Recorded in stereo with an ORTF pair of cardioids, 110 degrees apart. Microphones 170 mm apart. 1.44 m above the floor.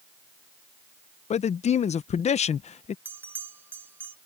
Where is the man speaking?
40° left.